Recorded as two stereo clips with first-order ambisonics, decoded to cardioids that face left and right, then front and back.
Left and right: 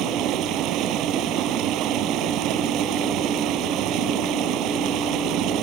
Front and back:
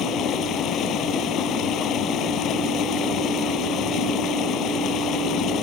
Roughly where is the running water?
Ahead right.